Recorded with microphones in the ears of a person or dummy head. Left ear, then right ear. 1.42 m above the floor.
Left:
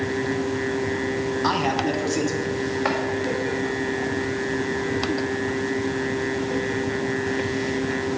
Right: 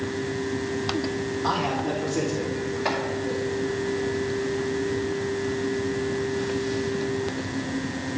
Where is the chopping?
40° left (ahead or behind), 2 m.